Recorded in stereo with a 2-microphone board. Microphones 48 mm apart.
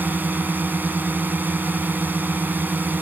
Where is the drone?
40° right (ahead or behind).